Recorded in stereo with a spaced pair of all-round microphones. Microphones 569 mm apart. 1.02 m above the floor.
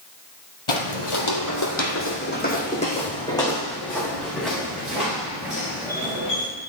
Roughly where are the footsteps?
Left.